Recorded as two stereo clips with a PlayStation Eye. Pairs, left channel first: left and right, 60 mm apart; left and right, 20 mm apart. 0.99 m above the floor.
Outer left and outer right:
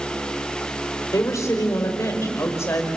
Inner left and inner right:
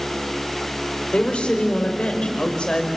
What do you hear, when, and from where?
1.1 s a woman speaking: 55° left (ahead or behind), 4 m; by 2.9 s 45° left (ahead or behind), 4.5 m